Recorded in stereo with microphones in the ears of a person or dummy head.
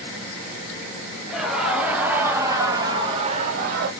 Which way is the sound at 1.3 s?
Centre (ahead or behind).